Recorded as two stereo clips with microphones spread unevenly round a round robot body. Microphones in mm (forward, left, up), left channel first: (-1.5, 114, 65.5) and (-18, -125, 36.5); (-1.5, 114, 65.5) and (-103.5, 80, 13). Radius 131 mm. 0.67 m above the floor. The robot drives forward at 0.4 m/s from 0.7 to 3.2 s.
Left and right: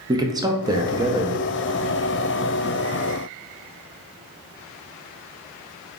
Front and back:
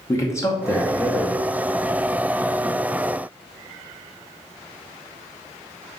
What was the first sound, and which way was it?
A man speaking, 75° right.